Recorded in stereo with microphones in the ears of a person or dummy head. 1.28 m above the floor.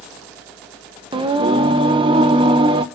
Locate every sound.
1.1 s singing: 30° right (ahead or behind), 1.4 m